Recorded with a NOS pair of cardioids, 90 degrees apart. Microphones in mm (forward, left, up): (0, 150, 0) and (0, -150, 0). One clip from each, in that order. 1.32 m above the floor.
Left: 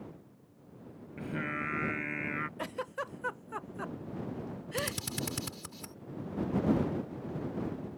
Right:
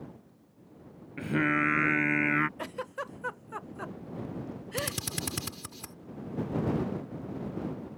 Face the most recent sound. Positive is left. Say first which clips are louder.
# right 1 dB
turn(degrees=-25)